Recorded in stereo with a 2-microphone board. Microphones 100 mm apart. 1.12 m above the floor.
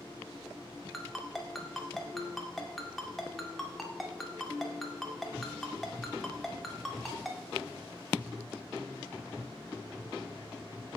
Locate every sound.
0.9 s a ringtone: centre (ahead or behind), 2.5 m